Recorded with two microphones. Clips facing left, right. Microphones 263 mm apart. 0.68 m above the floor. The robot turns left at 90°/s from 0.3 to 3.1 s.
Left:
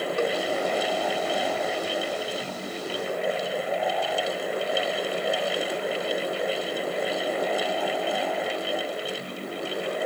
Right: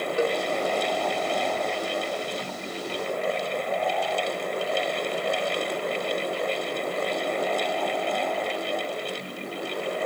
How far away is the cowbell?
About 1.5 m.